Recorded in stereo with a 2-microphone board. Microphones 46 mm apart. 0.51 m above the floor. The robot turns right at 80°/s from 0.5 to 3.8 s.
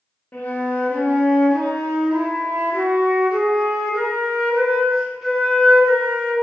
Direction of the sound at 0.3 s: 85° left.